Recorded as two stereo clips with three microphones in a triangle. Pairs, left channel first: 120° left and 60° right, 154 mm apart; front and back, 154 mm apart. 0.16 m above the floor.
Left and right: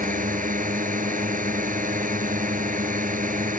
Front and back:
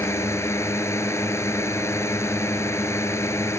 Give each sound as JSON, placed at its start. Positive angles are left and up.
{"t": 0.0, "sound": "a drone", "azimuth_deg": -70}